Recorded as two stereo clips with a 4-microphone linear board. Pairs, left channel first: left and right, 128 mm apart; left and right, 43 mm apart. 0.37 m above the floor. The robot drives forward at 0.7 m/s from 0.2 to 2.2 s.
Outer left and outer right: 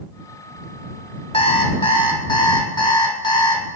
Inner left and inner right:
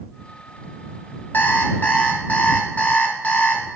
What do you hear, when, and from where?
1.3 s an alarm clock: 55° left (ahead or behind), 1.4 m; by 3.6 s 40° left (ahead or behind), 1.8 m